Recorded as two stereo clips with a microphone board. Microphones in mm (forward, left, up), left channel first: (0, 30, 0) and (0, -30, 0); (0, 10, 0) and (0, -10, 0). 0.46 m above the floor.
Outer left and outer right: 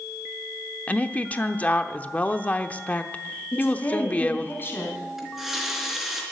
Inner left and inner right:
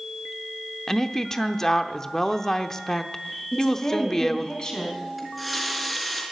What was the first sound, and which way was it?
A woman speaking, 25° left (ahead or behind).